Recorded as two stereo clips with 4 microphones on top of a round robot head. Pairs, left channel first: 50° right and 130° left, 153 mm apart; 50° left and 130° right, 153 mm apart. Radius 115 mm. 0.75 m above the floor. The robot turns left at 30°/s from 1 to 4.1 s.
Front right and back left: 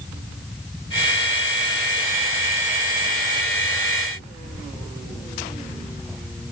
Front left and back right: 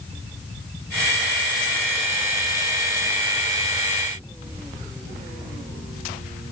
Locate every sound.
Only background noise.